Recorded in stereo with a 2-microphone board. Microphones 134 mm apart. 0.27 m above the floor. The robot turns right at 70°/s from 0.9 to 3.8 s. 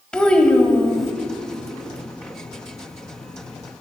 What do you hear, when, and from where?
0.1 s a child speaking: 5° left (ahead or behind), 1.2 m; by 1.1 s centre (ahead or behind), 1.2 m